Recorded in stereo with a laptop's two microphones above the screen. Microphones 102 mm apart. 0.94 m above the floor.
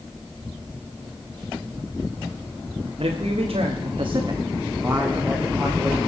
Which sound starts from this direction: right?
A man speaking, at 3.0 s.